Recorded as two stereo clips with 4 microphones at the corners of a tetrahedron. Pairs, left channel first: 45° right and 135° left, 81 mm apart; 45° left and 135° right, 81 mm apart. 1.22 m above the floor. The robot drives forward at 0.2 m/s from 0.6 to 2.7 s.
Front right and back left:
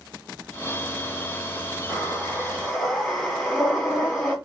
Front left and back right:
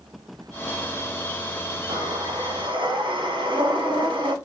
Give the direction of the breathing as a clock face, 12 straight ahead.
4 o'clock.